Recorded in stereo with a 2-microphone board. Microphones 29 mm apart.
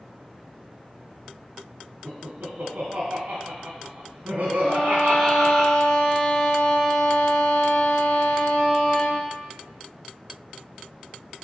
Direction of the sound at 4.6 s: 70° left (ahead or behind).